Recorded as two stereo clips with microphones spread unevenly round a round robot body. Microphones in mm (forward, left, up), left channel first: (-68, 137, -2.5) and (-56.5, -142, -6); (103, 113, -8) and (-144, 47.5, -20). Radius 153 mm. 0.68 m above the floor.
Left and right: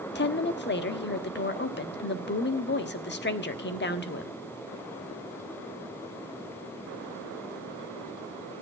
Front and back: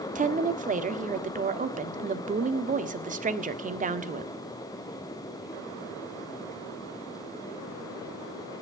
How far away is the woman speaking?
About 1.5 m.